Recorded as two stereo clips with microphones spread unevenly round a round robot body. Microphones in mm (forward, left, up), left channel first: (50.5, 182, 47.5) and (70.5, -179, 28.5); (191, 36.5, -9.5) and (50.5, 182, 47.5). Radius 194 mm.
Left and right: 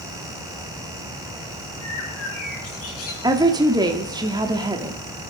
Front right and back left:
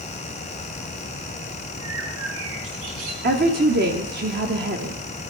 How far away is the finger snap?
I don't hear a finger snap.